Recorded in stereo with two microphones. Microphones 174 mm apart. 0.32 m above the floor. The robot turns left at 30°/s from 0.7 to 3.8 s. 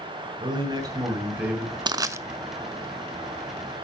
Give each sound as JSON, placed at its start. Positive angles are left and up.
{"t": 0.4, "sound": "a man speaking", "azimuth_deg": -145, "distance_m": 2.5}
{"t": 1.9, "sound": "crushing", "side_deg": -25, "distance_m": 0.5}